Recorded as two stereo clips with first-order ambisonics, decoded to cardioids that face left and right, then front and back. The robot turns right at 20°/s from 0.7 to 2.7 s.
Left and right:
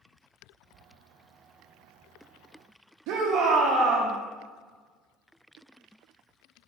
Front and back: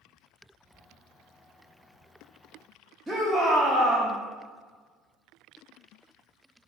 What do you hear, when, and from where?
3.1 s a shout: 90° right, 0.6 m